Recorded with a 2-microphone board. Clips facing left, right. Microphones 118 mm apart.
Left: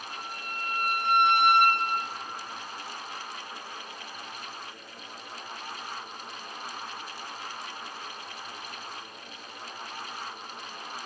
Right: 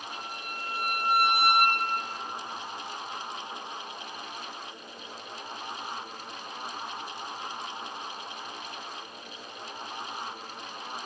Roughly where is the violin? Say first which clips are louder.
Left 1 dB; centre.